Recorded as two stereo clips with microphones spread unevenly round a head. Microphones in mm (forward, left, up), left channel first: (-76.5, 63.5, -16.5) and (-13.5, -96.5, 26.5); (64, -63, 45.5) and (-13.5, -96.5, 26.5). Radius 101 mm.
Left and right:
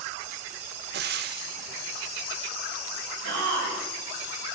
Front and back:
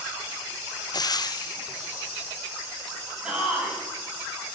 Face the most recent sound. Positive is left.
turn(degrees=-80)